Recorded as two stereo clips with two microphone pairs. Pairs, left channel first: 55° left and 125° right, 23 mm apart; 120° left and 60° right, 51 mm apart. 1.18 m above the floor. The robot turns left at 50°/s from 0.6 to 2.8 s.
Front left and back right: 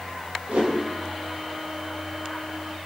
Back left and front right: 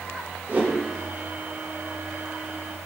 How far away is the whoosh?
About 1.1 m.